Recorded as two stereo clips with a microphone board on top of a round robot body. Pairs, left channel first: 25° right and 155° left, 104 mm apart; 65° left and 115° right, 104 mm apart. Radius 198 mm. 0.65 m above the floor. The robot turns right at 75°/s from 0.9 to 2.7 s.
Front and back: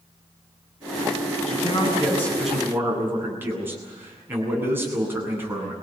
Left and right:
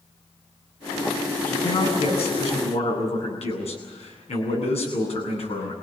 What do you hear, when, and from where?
1.5 s a man speaking: 5° right, 8.5 m; by 5.7 s 85° left, 8.5 m